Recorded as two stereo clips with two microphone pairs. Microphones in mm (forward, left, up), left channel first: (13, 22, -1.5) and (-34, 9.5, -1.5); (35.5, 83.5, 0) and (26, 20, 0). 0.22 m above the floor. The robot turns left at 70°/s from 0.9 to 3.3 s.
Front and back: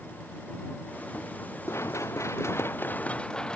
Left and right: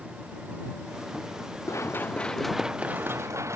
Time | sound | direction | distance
1.7 | running footsteps | 45° left | ?